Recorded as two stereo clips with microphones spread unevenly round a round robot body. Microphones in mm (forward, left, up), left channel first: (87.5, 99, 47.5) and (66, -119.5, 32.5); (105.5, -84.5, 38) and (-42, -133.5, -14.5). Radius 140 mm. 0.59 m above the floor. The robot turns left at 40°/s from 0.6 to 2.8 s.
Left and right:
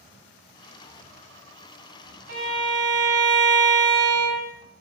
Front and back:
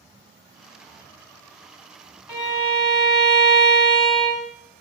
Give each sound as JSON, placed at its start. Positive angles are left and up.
{"t": 2.3, "sound": "a violin", "azimuth_deg": -50, "distance_m": 1.1}